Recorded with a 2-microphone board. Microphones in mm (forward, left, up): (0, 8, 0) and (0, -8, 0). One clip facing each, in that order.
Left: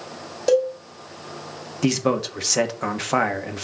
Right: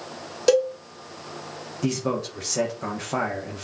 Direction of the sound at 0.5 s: 30° right (ahead or behind).